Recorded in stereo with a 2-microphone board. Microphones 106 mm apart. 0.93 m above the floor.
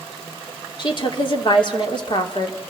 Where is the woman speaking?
50° left (ahead or behind), 3 m.